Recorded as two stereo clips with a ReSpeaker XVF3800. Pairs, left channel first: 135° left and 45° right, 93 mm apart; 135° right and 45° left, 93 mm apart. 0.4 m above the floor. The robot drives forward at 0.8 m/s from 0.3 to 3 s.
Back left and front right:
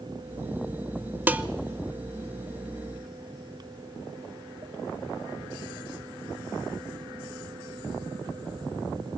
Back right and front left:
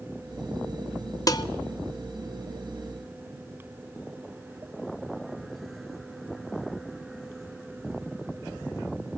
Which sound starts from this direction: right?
Dishes clattering, at 1.3 s.